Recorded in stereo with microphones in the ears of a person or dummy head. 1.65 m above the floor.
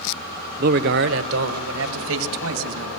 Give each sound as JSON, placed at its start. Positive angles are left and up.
{"t": 0.6, "sound": "a man speaking", "side_deg": -45, "distance_m": 1.0}